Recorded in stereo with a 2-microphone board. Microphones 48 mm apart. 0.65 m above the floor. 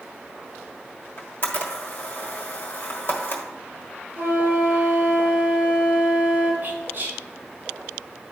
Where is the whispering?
45° right (ahead or behind), 1.4 m.